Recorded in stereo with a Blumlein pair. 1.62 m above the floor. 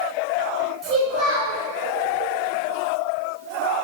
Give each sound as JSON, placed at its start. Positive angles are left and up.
{"t": 0.8, "sound": "a child speaking", "azimuth_deg": -20, "distance_m": 1.4}